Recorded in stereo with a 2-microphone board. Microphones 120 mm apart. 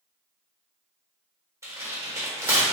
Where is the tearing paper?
25° right (ahead or behind), 1.2 m.